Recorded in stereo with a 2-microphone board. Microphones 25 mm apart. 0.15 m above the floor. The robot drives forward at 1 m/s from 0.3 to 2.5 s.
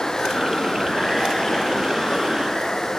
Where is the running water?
25° left (ahead or behind); by 3.0 s 20° left (ahead or behind).